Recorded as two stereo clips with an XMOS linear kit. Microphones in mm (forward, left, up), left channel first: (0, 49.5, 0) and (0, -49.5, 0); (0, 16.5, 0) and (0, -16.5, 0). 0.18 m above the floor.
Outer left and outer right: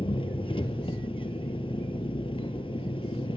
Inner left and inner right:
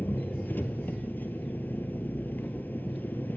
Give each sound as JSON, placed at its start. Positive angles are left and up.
{"t": 0.0, "sound": "an engine running", "side_deg": 65, "distance_m": 1.1}